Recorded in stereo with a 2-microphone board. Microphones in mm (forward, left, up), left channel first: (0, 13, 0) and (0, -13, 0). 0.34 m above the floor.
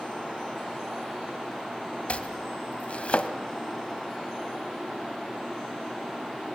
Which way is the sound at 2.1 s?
55° left (ahead or behind).